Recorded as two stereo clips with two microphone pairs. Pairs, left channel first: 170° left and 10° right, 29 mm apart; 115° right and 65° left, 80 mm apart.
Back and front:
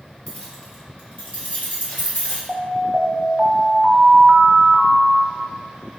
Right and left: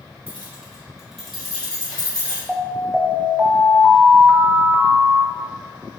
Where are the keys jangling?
130° left, 1.8 m; by 2.4 s 175° left, 3 m.